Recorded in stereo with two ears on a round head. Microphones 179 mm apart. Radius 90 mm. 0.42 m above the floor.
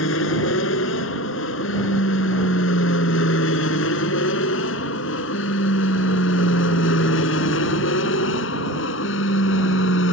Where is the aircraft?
70° left (ahead or behind); by 10.1 s 65° left (ahead or behind).